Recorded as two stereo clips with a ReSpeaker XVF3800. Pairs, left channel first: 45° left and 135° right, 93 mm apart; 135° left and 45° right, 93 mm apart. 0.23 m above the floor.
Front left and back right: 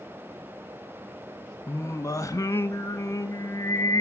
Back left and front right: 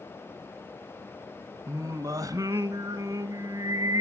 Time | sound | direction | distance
1.7 | singing | 5° right | 0.9 m